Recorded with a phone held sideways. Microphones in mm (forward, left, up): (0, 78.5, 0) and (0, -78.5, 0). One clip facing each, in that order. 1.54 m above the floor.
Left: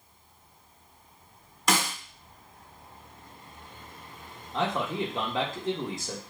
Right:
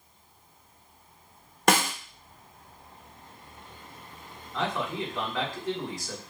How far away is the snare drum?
About 1.0 m.